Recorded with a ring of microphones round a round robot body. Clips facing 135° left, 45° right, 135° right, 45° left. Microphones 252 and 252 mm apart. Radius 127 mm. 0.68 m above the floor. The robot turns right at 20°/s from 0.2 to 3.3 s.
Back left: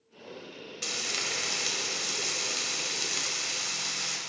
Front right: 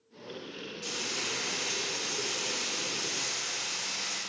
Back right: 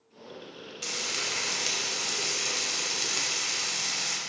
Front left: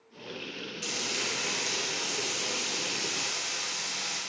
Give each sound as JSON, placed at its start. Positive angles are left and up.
{"t": 0.8, "sound": "frying", "azimuth_deg": 140, "distance_m": 1.8}